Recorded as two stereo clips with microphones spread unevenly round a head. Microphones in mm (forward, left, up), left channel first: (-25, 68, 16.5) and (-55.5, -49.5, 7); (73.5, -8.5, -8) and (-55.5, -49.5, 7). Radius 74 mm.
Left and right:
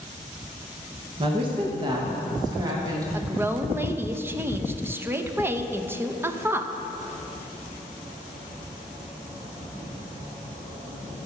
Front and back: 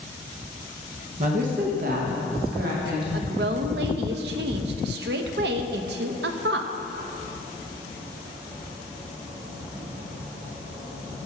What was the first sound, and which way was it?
A woman speaking, 135° right.